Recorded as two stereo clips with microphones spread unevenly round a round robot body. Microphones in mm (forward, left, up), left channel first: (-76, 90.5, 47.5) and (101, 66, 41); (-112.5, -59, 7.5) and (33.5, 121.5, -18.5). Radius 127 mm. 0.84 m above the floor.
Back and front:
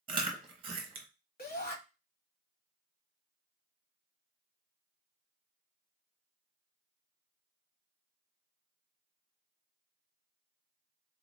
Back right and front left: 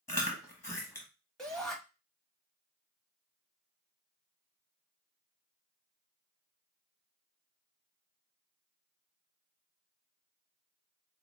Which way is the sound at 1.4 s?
140° left.